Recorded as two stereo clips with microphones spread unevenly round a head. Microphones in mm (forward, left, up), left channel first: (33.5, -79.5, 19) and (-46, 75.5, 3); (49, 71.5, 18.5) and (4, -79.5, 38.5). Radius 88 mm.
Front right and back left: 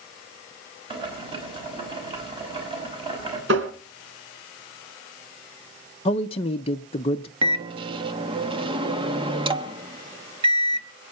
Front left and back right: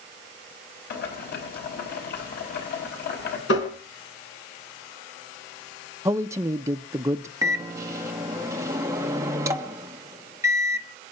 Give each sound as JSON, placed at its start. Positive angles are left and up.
{"t": 0.9, "sound": "boiling", "azimuth_deg": 55, "distance_m": 6.0}
{"t": 3.5, "sound": "tapping", "azimuth_deg": 95, "distance_m": 3.5}
{"t": 6.0, "sound": "a man speaking", "azimuth_deg": -40, "distance_m": 0.6}
{"t": 7.4, "sound": "a microwave", "azimuth_deg": 180, "distance_m": 1.1}